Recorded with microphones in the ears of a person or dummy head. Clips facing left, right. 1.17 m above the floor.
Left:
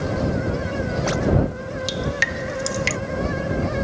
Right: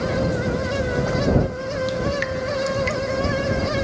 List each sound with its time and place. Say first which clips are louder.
1.9 s dripping: right 3 dB; 60° left (ahead or behind)